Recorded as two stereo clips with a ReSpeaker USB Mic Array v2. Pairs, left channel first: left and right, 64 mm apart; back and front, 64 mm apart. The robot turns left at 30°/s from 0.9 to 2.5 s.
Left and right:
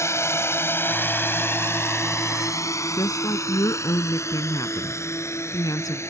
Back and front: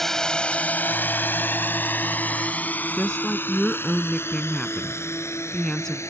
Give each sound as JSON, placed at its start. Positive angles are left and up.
{"t": 0.0, "sound": "a drone", "azimuth_deg": 95}
{"t": 3.0, "sound": "a woman speaking", "azimuth_deg": 100}